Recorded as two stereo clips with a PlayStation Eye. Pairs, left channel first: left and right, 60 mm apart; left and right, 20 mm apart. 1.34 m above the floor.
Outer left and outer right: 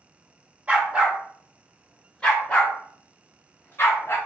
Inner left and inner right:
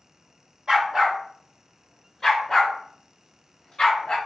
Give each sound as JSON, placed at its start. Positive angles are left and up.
{"t": 0.7, "sound": "a dog barking", "side_deg": -20, "distance_m": 1.4}